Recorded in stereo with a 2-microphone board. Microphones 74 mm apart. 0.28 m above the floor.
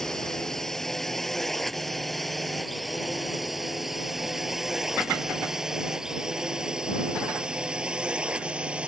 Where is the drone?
5° left (ahead or behind); by 8.9 s 15° right (ahead or behind).